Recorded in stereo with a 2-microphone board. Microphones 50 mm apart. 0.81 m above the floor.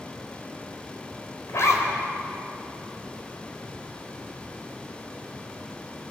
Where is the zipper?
65° left (ahead or behind), 4 m.